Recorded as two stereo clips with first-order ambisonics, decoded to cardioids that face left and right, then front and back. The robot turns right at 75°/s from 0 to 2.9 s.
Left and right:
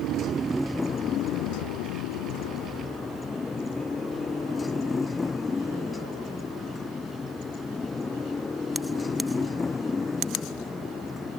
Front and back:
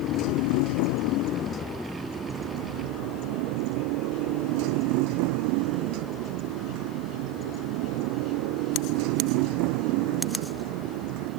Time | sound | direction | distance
0.0 | a motorcycle | 50° right | ?